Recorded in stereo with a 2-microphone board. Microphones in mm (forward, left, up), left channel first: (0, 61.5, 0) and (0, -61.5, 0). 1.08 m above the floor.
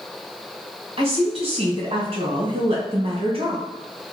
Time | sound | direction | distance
1.0 | a woman speaking | 50° right (ahead or behind) | 1.0 m